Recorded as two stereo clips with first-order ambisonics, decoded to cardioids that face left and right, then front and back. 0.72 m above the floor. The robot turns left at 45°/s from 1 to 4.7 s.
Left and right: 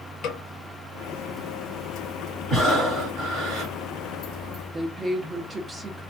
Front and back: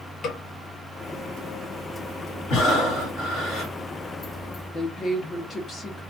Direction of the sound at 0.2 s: 55° left.